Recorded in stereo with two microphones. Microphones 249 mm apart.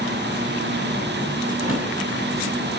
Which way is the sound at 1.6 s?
70° right (ahead or behind).